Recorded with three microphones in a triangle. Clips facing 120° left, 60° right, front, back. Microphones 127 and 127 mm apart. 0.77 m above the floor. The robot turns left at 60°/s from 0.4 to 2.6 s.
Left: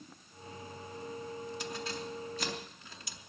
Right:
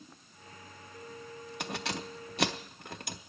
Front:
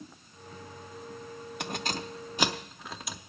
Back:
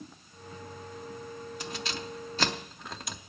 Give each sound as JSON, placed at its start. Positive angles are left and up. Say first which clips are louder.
{"t": 1.6, "sound": "keys jangling", "louder": "right 2 dB, front 5 dB", "azimuth_deg": -30, "distance_m": 0.6}